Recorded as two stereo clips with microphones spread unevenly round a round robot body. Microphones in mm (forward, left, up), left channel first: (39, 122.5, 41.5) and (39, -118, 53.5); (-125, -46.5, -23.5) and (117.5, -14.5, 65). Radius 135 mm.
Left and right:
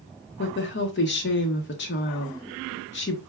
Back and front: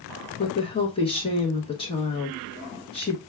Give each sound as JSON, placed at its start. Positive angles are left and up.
{"t": 0.4, "sound": "a woman speaking", "azimuth_deg": 130, "distance_m": 0.9}